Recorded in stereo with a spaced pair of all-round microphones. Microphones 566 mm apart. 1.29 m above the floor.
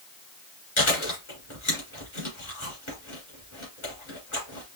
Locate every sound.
0.8 s chewing: 55° left (ahead or behind), 3 m